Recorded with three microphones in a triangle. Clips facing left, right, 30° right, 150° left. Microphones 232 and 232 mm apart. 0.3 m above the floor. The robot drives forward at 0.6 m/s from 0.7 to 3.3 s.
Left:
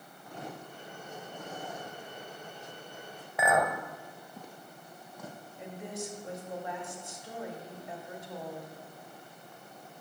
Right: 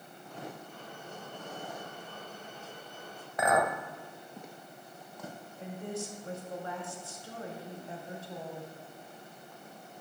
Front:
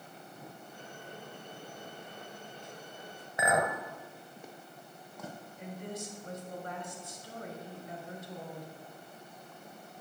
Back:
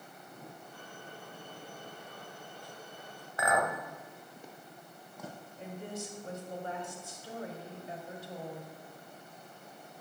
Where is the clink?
10° left, 0.7 m.